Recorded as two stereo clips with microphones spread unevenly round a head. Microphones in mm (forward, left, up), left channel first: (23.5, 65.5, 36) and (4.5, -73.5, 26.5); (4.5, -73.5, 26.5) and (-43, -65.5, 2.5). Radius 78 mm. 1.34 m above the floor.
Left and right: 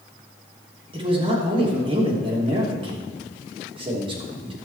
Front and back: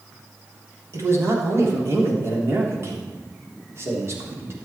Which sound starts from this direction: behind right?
A man speaking, at 0.9 s.